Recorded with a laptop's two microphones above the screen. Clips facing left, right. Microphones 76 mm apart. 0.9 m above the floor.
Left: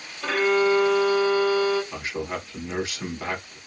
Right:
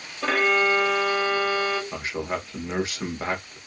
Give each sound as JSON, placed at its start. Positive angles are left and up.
{"t": 0.2, "sound": "a violin", "side_deg": -70, "distance_m": 1.2}
{"t": 1.9, "sound": "a man speaking", "side_deg": -30, "distance_m": 0.9}